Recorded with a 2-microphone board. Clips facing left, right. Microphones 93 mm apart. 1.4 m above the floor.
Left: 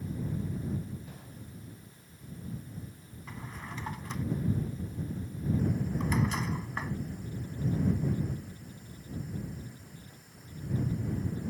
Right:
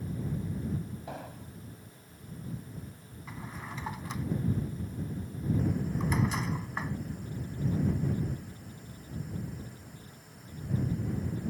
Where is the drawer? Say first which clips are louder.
Right 1 dB; 5° right (ahead or behind).